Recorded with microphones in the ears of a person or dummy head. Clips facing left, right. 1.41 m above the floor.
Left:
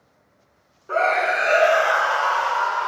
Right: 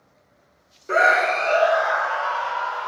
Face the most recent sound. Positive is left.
turn(degrees=65)  # may be behind; listen again after turning